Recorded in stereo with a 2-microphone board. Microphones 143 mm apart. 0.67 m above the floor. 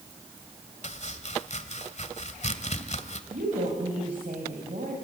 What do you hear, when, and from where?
0.8 s chopping: 60° left (ahead or behind), 1.6 m
3.3 s a woman speaking: 80° right, 4.5 m